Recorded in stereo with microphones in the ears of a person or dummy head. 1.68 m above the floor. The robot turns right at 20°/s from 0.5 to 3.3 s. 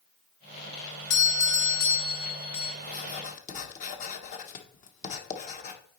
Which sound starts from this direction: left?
Writing, at 2.8 s.